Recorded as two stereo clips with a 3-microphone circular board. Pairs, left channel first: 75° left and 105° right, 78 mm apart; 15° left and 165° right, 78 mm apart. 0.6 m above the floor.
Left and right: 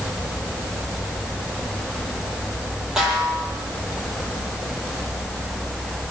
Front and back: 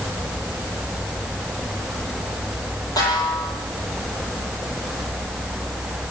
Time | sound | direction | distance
3.0 | a snare drum | 20° right | 9 m